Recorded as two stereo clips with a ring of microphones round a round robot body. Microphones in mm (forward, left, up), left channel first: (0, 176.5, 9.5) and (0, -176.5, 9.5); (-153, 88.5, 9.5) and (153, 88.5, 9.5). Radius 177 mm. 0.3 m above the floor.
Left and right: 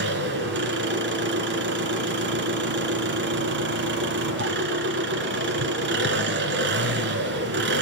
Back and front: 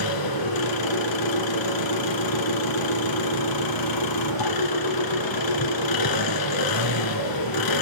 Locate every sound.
0.0 s an engine running: 150° right, 2.5 m